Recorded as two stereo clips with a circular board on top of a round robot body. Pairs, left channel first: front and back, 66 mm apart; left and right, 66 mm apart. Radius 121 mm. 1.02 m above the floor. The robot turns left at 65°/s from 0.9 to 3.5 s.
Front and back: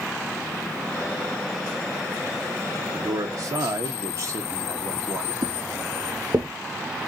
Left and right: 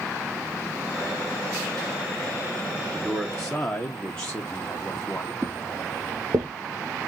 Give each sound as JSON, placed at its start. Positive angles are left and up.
{"t": 2.9, "sound": "a man speaking", "azimuth_deg": -155, "distance_m": 1.0}
{"t": 5.4, "sound": "footsteps", "azimuth_deg": -165, "distance_m": 1.7}